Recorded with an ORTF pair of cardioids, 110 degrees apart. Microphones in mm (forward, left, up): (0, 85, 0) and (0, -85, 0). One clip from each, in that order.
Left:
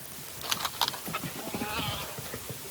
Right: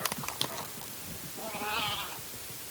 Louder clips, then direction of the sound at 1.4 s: Right 5 dB; 15° right.